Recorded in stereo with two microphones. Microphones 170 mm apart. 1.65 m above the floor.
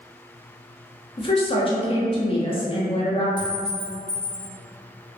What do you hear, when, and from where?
1.2 s a woman speaking: 35° left (ahead or behind), 0.6 m
3.4 s a clink: 30° left (ahead or behind), 1.7 m